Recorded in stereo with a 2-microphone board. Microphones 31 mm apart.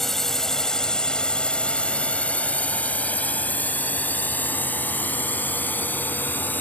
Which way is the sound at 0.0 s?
10° left (ahead or behind).